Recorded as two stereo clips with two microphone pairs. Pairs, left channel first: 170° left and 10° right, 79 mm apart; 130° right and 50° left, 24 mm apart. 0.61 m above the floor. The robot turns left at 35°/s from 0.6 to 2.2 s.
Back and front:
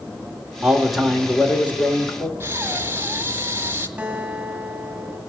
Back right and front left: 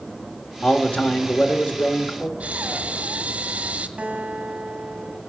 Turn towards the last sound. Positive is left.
turn(degrees=65)